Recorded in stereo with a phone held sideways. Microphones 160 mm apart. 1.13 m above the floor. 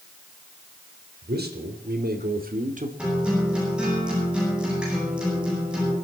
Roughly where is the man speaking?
Right.